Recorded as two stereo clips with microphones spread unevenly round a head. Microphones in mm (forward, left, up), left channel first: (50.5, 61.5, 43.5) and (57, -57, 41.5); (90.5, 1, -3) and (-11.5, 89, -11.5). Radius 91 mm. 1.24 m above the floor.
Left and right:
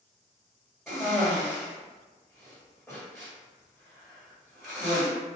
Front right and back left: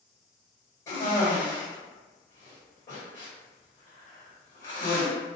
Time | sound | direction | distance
0.9 | a cough | 5° left | 1.7 m